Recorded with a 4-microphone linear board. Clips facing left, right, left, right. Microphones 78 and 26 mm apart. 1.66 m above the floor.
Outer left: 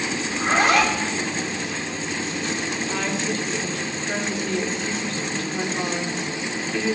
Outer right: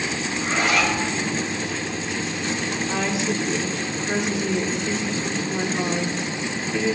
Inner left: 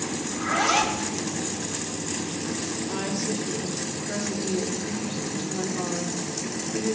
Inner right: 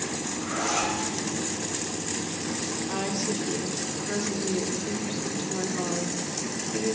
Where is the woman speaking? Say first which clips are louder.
Outer right 3 dB, even; 15° right (ahead or behind), 1.4 m.